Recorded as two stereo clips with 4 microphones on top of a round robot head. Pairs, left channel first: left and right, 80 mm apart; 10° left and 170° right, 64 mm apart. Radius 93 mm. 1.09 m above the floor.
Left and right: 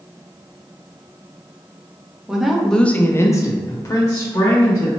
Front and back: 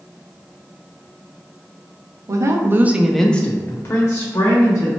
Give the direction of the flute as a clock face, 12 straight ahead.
I don't hear a flute.